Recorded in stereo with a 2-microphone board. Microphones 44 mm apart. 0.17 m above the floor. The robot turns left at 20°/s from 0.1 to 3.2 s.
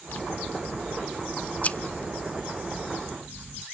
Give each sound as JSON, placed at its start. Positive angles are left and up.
{"t": 0.1, "sound": "scissors", "azimuth_deg": 75, "distance_m": 0.6}